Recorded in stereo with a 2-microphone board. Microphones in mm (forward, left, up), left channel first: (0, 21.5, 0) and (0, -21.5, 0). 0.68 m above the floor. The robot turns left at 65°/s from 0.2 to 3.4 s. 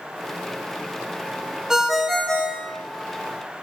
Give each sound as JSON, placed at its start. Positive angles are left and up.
{"t": 1.7, "sound": "a ringtone", "azimuth_deg": -165, "distance_m": 0.7}